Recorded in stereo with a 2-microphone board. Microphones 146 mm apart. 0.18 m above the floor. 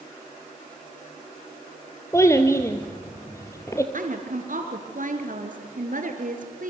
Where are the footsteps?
I don't hear footsteps.